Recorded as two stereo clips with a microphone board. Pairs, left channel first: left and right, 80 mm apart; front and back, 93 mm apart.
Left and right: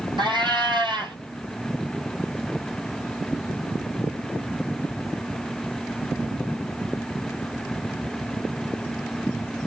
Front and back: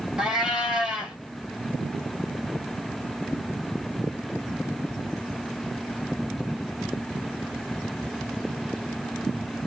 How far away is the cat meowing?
About 1.4 m.